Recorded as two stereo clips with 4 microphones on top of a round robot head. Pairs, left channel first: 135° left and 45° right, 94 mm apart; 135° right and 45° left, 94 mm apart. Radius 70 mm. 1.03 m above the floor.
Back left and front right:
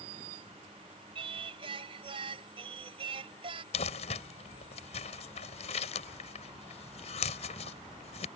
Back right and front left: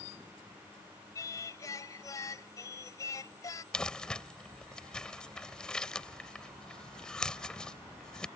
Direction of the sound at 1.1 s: 80° right.